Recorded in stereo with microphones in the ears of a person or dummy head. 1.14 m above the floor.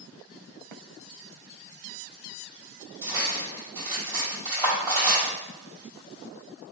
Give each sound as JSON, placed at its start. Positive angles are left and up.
{"t": 3.0, "sound": "cutlery clinking", "side_deg": -20, "distance_m": 1.6}